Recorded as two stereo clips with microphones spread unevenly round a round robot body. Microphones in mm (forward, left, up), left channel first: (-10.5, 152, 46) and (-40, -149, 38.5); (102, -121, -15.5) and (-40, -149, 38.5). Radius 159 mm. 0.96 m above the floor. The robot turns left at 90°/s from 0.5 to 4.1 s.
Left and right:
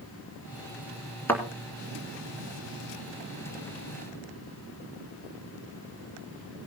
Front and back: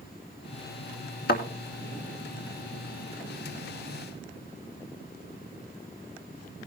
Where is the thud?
Straight ahead, 2 m; by 1.4 s 10° right, 2 m.